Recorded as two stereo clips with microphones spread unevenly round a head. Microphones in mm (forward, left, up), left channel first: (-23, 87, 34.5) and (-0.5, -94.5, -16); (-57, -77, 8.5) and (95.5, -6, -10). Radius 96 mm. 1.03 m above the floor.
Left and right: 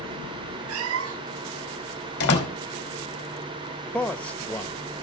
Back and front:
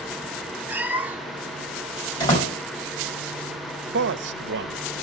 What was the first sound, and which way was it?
A cat meowing, 60° right.